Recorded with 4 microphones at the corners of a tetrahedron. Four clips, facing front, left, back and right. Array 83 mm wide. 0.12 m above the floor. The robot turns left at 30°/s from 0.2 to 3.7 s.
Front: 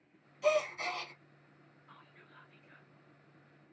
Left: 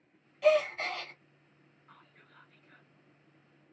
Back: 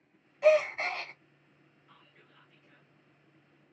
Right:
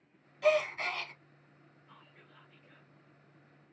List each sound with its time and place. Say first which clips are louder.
0.4 s a gasp: left 2 dB, back 7 dB; 175° right, 1.0 m; by 1.1 s 165° left, 1.0 m
1.9 s whispering: left 1 dB, front 3 dB; 55° left, 1.2 m; by 2.9 s 25° left, 1.2 m